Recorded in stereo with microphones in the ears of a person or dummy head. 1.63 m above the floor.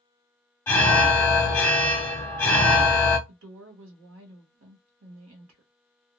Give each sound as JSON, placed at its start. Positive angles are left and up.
{"t": 0.7, "sound": "an alarm", "side_deg": 10, "distance_m": 0.5}
{"t": 3.3, "sound": "a woman speaking", "side_deg": -75, "distance_m": 1.0}